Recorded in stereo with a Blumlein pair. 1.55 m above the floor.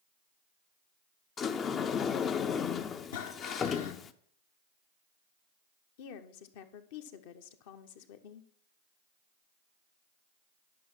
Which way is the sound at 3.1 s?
55° left.